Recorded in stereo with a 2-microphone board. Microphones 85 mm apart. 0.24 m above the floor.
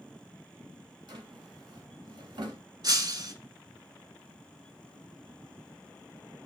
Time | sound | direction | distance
1.1 | a drawer | 70° right (ahead or behind) | 1.4 m
2.8 | breaking glass | 55° right (ahead or behind) | 1.0 m